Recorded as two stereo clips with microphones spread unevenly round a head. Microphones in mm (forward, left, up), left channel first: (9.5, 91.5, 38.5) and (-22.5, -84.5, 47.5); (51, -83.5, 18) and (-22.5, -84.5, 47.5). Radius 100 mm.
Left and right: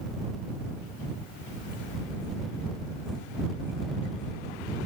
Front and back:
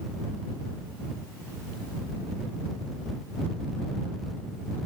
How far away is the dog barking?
I don't hear a dog barking.